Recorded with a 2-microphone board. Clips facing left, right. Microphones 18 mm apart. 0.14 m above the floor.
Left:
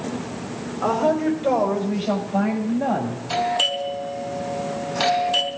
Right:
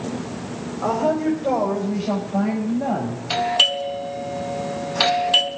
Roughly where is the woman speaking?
Left.